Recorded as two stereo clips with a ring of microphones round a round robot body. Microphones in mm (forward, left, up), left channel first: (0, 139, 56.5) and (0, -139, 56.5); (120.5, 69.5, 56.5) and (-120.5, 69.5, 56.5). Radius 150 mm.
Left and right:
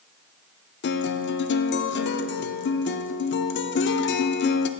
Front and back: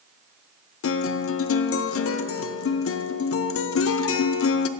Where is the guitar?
35° left, 0.5 m.